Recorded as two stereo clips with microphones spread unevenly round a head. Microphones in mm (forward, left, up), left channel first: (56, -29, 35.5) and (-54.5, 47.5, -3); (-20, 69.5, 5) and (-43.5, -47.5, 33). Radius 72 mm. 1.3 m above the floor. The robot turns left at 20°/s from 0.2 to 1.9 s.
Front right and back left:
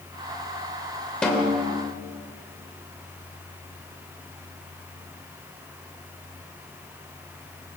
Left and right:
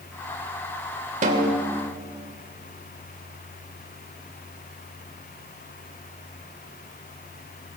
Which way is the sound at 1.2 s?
110° right.